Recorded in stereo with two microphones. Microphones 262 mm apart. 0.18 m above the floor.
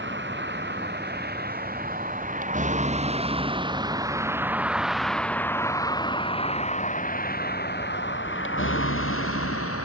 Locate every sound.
0.0 s a vehicle: 45° right (ahead or behind); by 9.8 s 60° left (ahead or behind)